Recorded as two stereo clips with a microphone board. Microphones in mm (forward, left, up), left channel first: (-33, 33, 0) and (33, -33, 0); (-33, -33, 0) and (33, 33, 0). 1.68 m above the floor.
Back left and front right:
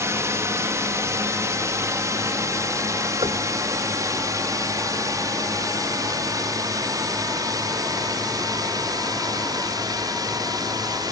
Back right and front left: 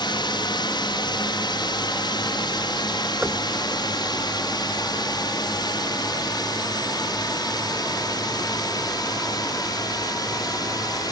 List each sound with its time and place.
0.0 s a drone: 105° right; by 11.1 s 90° right
3.2 s knocking: 25° right